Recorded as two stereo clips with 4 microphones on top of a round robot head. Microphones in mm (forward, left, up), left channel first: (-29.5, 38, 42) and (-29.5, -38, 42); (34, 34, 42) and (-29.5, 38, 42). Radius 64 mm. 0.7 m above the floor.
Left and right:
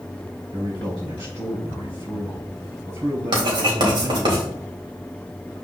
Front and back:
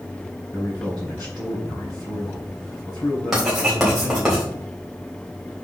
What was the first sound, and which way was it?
A man speaking, 55° right.